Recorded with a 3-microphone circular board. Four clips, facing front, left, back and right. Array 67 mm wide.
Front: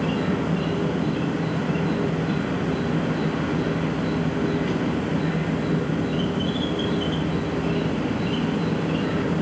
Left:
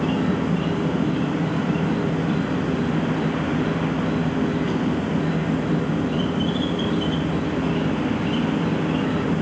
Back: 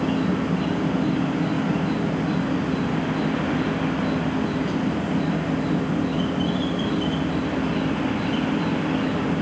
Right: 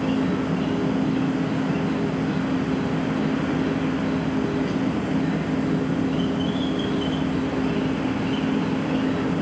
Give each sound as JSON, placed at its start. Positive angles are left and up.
{"t": 0.0, "sound": "an insect", "azimuth_deg": 60, "distance_m": 2.0}